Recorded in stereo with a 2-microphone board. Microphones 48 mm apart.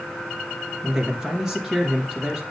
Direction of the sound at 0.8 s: 15° right (ahead or behind).